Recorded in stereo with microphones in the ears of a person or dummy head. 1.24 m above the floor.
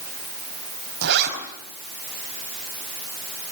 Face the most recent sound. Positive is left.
turn(degrees=-50)  # may be behind; listen again after turning